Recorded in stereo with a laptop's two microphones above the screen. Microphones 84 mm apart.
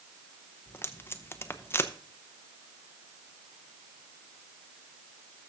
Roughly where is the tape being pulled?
Left.